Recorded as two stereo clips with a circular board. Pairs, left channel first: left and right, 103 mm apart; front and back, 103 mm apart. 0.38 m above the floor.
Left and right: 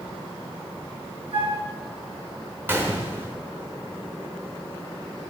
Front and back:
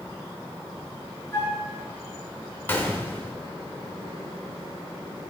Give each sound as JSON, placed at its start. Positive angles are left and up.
{"t": 1.3, "sound": "a flute", "azimuth_deg": -70, "distance_m": 3.0}
{"t": 2.7, "sound": "a gunshot", "azimuth_deg": -50, "distance_m": 0.9}